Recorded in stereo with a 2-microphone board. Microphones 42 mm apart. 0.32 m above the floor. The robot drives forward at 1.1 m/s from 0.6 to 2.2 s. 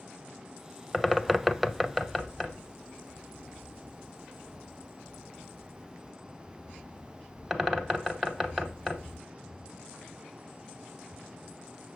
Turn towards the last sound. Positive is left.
turn(degrees=0)  # may be behind; listen again after turning